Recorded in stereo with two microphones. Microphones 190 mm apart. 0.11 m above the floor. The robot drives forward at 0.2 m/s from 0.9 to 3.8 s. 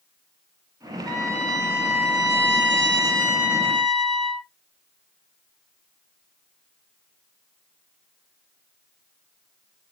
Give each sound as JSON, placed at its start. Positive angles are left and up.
{"t": 1.1, "sound": "a trumpet", "side_deg": -20, "distance_m": 2.0}